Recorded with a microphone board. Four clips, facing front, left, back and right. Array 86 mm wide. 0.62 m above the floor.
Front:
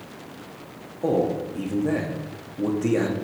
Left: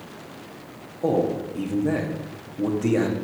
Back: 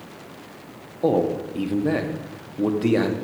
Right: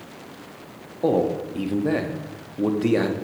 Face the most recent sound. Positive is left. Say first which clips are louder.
# right 1 dB, back 2 dB
turn(degrees=-135)